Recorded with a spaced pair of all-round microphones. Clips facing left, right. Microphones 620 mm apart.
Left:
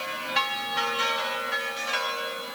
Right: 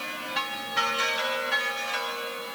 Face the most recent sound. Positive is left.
No sound to turn to.